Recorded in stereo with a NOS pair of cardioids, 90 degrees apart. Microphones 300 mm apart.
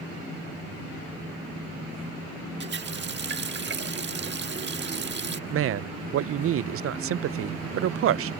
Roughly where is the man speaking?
Ahead right.